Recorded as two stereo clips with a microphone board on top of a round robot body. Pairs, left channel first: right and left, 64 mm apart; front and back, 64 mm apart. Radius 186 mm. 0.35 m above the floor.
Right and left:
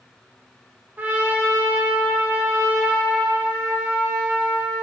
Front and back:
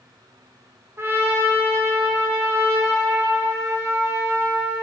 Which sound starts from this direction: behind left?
A trumpet, at 1.0 s.